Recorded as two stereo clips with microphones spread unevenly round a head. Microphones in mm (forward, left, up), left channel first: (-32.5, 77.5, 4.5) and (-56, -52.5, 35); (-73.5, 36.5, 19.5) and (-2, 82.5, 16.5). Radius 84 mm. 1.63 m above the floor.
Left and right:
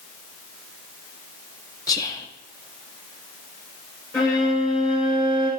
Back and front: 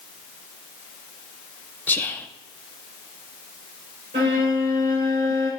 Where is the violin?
Straight ahead, 5 m.